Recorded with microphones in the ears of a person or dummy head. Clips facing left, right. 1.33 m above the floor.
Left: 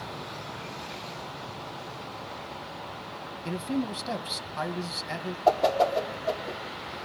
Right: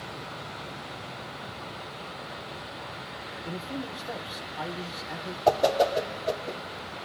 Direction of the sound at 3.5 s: 70° left (ahead or behind).